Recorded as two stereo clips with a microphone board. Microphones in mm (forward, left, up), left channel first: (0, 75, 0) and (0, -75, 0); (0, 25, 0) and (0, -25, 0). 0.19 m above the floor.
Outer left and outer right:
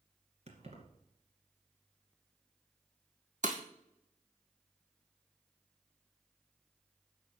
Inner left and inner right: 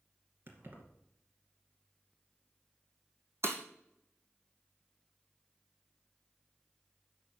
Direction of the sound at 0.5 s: 45° right (ahead or behind).